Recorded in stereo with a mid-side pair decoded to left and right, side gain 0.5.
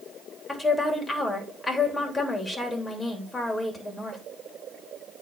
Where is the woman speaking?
15° left, 3 m.